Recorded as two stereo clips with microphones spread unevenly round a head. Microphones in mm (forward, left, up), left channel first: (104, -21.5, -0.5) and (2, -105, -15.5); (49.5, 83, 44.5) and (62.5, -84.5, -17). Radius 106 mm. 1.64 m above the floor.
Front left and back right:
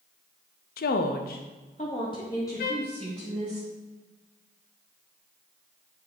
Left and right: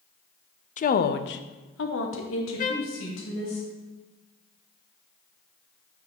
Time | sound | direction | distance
0.8 | a woman speaking | 45° left | 0.5 m
2.6 | a trumpet | 55° left | 0.6 m